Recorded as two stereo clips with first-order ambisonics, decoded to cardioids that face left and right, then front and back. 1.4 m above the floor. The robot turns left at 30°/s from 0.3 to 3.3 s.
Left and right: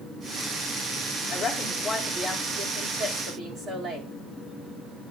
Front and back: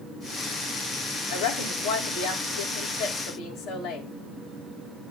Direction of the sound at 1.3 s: 20° left.